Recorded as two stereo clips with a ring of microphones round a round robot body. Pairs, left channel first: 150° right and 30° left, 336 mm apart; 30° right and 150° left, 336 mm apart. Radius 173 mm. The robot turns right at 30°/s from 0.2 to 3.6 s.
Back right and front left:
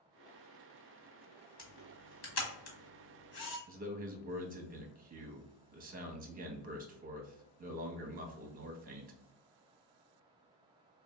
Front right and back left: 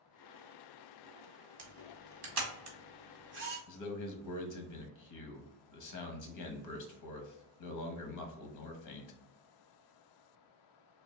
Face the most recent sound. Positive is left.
turn(degrees=-30)